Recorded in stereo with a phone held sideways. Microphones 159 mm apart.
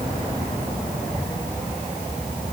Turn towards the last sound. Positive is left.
No sound to turn to.